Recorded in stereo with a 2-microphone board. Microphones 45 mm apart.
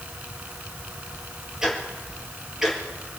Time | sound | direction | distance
1.6 | ticking | 10° right (ahead or behind) | 3 m